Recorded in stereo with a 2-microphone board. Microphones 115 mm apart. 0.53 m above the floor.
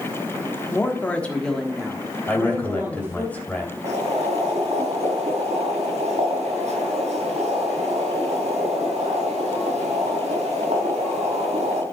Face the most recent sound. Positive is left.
turn(degrees=-75)  # may be behind; listen again after turning